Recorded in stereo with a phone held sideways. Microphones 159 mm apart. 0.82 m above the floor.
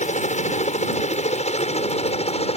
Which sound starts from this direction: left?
A helicopter, at 0.0 s.